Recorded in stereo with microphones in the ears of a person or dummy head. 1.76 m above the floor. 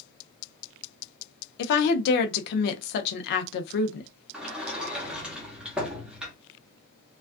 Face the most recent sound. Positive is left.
turn(degrees=-10)  # may be behind; listen again after turning